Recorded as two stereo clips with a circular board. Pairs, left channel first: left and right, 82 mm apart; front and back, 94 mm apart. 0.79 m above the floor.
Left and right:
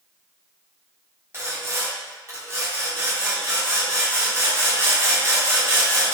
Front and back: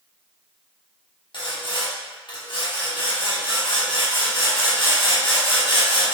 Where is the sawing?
30° right, 0.9 m.